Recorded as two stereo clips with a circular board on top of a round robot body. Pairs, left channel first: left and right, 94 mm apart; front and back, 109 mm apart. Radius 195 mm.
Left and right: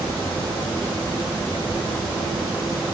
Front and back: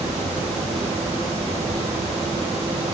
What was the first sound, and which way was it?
Only background noise.